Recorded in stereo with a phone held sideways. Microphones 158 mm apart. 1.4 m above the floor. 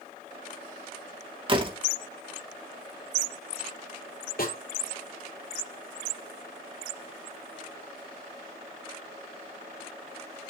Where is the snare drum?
70° left (ahead or behind), 5 m.